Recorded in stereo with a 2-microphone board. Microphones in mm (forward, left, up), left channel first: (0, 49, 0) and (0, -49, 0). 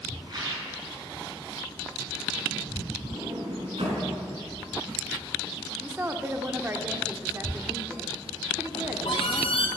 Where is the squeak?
75° left (ahead or behind), 1.7 m.